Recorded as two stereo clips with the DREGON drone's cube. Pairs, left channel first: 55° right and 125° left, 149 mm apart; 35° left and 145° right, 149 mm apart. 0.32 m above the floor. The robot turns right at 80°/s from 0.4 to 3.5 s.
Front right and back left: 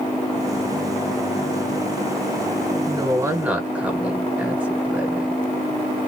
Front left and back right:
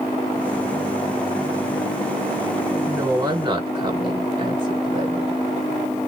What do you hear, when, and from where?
2.9 s a woman speaking: 145° left, 1.6 m; by 5.4 s 160° right, 1.6 m